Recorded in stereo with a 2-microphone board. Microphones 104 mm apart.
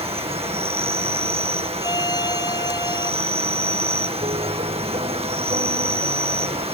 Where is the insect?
70° right (ahead or behind).